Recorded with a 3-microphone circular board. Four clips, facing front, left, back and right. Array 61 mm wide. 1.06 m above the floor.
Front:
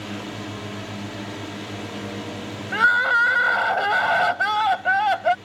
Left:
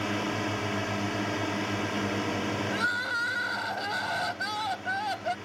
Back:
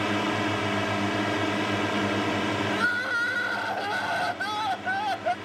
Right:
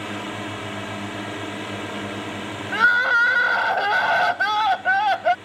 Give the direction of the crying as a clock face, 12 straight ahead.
2 o'clock.